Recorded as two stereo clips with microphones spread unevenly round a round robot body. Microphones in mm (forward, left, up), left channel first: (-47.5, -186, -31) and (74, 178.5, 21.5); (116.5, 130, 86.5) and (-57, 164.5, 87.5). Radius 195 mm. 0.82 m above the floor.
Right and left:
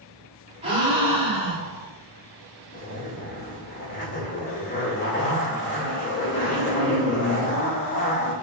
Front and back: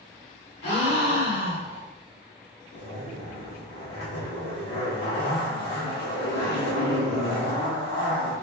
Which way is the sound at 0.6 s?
5° right.